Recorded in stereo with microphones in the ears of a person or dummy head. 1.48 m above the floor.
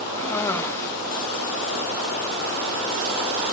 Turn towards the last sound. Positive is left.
turn(degrees=10)  # may be behind; listen again after turning